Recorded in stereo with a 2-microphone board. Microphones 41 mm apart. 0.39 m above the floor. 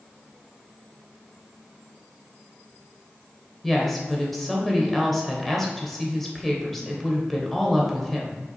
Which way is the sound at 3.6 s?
5° left (ahead or behind).